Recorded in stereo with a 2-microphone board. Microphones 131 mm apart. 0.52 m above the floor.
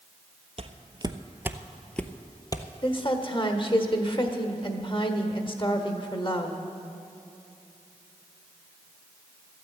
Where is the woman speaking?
40° left (ahead or behind), 1.3 m.